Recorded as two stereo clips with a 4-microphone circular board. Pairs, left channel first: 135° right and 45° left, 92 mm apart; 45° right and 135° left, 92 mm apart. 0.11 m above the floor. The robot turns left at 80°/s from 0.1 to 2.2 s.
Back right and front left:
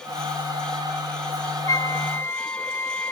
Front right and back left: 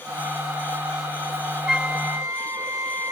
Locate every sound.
1.7 s a flute: 145° right; by 3.1 s 175° left